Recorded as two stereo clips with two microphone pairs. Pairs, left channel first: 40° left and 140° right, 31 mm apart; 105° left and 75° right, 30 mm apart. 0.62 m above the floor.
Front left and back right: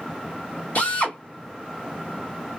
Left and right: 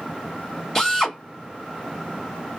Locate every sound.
0.8 s a drill: 30° left, 1.2 m